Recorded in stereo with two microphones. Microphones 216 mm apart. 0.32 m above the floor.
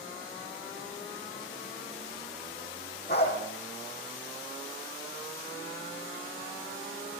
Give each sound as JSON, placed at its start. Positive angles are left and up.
{"t": 3.1, "sound": "a dog barking", "side_deg": 50, "distance_m": 6.0}